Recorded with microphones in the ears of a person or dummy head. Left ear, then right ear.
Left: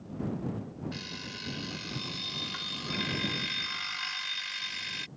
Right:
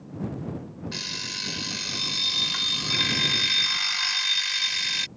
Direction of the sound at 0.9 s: 20° right (ahead or behind).